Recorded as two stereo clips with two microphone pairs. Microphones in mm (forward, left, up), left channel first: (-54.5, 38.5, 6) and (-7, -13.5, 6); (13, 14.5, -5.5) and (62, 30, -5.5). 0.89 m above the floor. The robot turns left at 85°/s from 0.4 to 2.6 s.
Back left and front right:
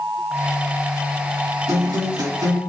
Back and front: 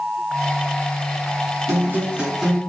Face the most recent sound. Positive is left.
turn(degrees=-85)